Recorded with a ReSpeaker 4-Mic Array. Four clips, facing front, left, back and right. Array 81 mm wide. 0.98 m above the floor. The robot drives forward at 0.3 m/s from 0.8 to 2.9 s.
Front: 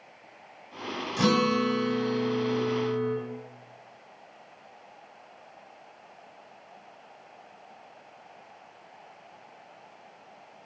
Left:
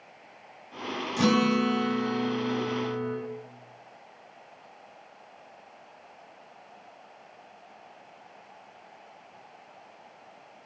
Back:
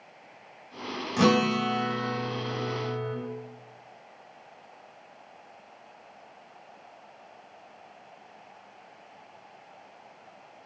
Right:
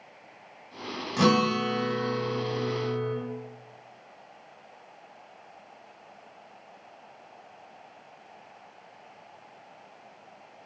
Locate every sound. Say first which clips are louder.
1.2 s a guitar: even, back 1 dB; 150° right, 1.0 m; by 3.1 s 160° right, 1.5 m